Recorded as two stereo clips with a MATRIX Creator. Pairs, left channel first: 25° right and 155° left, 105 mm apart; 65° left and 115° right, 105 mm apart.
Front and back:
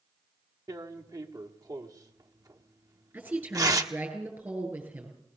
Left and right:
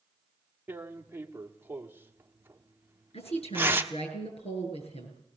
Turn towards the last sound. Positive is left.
turn(degrees=85)